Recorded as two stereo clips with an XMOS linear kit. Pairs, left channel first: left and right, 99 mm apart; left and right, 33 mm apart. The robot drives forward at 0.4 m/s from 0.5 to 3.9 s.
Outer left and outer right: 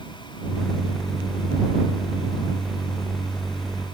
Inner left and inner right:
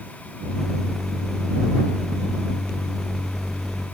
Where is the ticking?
I don't hear ticking.